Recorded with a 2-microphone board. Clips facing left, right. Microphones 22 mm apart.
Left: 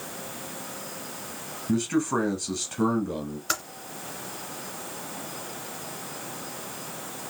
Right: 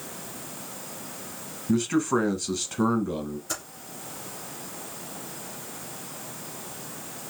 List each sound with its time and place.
1.7 s a man speaking: 10° right (ahead or behind), 1.4 m
3.5 s typing on a keyboard: 55° left (ahead or behind), 2 m